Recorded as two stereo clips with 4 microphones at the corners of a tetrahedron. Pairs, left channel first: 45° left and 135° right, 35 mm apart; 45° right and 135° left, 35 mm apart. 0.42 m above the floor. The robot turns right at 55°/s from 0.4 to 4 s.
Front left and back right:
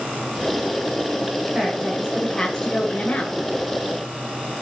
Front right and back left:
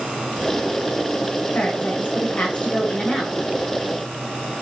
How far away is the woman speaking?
About 1.8 m.